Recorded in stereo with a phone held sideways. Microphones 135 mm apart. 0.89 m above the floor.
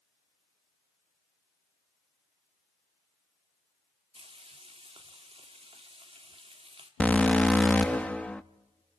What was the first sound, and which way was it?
Frying, 50° right (ahead or behind).